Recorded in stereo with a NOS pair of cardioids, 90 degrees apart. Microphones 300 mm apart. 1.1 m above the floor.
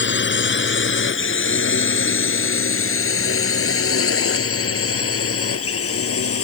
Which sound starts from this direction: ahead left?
A drone, at 0.0 s.